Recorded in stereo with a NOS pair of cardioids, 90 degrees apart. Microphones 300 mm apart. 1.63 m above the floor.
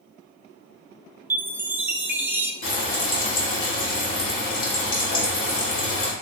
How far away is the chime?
About 0.6 m.